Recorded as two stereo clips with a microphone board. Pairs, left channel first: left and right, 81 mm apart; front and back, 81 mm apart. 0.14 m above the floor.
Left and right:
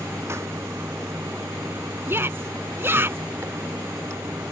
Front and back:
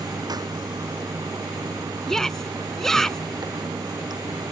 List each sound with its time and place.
0.0 s running water: 145° right
2.1 s a shout: 80° right